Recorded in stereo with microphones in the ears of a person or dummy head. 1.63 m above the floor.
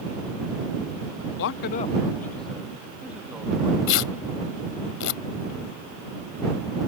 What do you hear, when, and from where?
1.4 s a man speaking: 55° left (ahead or behind); by 3.8 s 15° right (ahead or behind)
3.9 s tearing paper: 75° left (ahead or behind)